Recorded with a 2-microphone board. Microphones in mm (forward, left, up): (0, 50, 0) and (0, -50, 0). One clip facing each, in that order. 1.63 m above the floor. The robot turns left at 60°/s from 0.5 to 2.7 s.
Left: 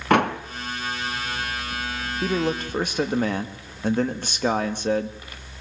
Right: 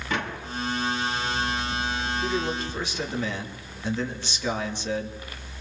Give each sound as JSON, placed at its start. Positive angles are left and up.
{"t": 0.1, "sound": "a door slam", "side_deg": 60, "distance_m": 1.7}
{"t": 2.2, "sound": "a man speaking", "side_deg": 80, "distance_m": 2.5}